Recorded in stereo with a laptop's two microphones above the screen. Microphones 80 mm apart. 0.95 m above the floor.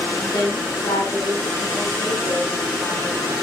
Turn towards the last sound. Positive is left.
turn(degrees=50)  # may be behind; listen again after turning